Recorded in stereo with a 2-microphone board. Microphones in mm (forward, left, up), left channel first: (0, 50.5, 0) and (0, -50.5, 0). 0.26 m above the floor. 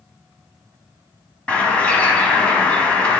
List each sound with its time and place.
1.5 s a bird: 15° left (ahead or behind), 1.4 m